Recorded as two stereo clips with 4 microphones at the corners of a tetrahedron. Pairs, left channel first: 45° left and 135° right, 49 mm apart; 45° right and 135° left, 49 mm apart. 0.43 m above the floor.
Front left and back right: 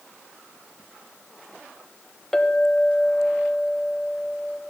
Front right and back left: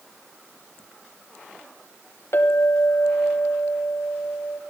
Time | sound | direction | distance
2.3 | a clink | 35° right | 1.5 m